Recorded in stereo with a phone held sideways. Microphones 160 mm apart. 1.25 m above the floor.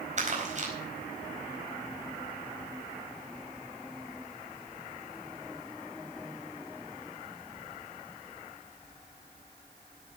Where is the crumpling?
45° right (ahead or behind), 4.5 m.